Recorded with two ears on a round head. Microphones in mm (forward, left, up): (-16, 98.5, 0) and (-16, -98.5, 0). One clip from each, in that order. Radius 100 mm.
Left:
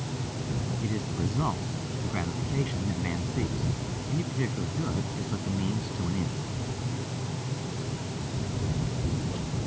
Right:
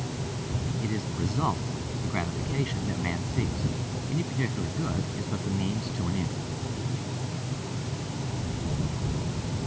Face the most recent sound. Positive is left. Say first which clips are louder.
# right 1 dB
turn(degrees=-15)  # may be behind; listen again after turning